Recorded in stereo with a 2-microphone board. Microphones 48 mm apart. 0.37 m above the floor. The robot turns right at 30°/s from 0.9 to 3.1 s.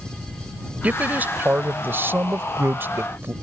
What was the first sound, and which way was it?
A man speaking, 135° right.